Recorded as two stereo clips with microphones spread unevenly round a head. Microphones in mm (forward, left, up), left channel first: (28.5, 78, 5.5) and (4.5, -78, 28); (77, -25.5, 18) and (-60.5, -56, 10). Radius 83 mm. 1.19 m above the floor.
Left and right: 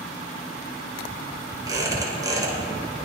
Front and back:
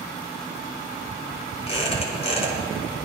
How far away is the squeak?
About 5.5 m.